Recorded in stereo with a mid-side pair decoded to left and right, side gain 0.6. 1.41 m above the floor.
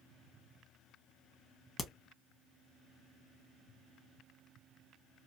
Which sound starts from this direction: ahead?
A crack, at 1.8 s.